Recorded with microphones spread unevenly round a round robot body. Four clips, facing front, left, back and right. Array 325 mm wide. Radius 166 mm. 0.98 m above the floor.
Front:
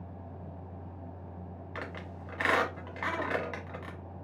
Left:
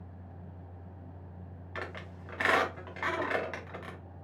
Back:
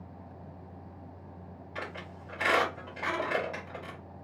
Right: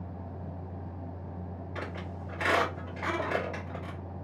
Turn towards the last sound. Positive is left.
turn(degrees=55)